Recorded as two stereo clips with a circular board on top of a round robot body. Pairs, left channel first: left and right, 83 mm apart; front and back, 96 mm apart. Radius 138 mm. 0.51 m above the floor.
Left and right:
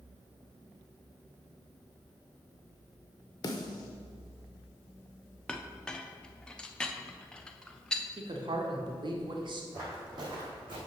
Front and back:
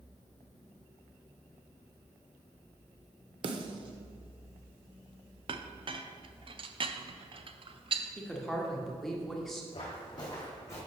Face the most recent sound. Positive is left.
turn(degrees=-60)